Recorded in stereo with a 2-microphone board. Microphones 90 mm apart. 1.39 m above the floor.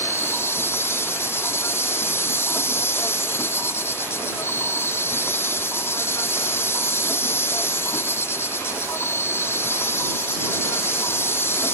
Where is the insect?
30° left (ahead or behind).